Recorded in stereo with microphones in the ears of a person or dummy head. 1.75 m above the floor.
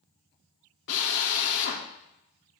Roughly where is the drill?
Left.